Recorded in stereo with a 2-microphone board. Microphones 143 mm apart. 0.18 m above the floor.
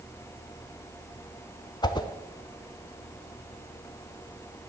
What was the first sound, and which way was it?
A whoosh, 30° left (ahead or behind).